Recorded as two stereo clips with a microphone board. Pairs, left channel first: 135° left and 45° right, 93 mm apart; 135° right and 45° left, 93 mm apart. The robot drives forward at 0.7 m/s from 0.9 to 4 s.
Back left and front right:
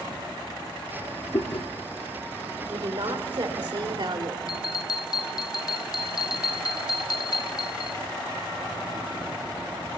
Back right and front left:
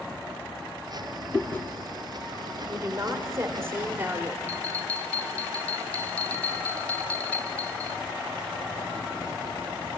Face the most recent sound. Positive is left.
turn(degrees=155)